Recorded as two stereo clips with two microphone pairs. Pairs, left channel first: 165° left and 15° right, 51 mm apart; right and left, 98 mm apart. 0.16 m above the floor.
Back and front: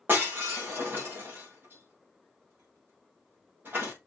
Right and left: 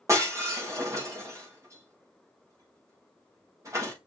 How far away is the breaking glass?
About 5.5 m.